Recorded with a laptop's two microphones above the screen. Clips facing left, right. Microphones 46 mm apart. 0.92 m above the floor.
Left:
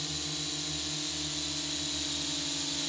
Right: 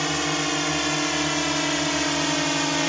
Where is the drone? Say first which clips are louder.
Right 15 dB; 60° right (ahead or behind); by 2.9 s 65° right (ahead or behind).